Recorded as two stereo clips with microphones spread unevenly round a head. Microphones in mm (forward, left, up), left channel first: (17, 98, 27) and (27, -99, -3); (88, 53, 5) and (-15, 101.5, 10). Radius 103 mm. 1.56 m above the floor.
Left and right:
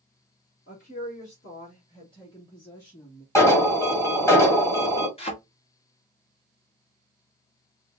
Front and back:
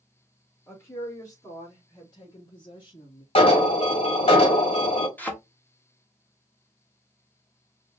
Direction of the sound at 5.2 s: 50° left.